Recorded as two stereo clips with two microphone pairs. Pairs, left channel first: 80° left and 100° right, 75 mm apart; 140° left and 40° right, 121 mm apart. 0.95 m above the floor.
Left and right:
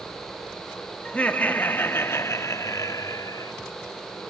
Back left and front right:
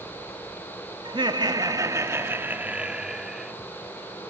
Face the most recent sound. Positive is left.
turn(degrees=50)